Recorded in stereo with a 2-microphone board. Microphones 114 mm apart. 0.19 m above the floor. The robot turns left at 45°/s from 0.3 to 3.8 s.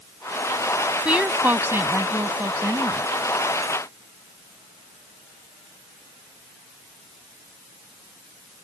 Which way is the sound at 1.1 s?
10° right (ahead or behind).